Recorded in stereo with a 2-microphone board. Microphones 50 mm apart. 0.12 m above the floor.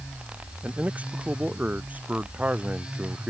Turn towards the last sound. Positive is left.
turn(degrees=-30)  # may be behind; listen again after turning